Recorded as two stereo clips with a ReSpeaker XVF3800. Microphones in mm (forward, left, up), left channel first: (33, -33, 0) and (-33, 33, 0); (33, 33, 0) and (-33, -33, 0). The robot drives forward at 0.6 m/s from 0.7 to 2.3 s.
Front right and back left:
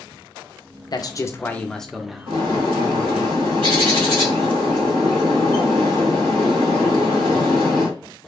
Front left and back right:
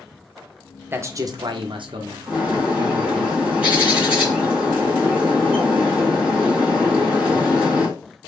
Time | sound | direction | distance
0.9 | a man speaking | 70° right | 0.6 m
2.3 | a bird | 145° left | 2.5 m